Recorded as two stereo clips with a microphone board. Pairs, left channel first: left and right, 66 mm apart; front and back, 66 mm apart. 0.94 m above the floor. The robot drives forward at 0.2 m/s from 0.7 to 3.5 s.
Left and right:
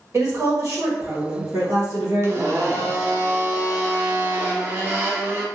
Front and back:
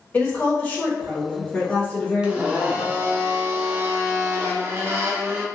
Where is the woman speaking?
60° right, 1.4 m; by 3.0 s 80° right, 1.2 m.